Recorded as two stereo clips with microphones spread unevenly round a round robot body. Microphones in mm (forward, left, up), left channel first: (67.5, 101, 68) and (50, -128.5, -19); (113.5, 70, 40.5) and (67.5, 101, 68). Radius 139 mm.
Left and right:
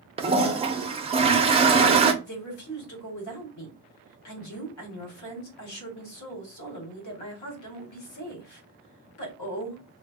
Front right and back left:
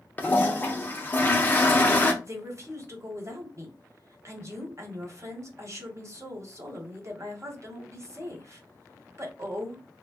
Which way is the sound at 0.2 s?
50° right.